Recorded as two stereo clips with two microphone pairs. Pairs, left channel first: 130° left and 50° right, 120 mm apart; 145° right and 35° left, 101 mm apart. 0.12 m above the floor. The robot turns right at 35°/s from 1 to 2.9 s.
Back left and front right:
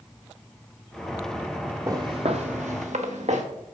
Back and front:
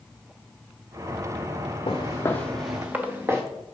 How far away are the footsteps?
About 0.9 m.